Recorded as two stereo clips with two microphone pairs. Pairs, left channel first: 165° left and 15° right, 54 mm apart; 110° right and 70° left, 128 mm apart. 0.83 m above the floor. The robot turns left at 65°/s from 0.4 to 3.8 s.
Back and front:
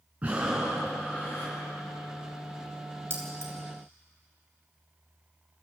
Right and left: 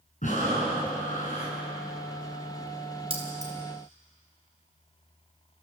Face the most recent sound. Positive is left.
turn(degrees=-15)